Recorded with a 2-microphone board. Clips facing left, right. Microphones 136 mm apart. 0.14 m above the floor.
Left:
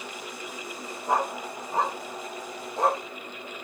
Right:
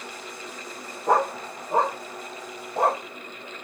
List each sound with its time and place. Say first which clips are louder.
1.1 s a dog barking: right 5 dB; 65° right (ahead or behind), 3 m; by 3.0 s 55° right (ahead or behind), 5 m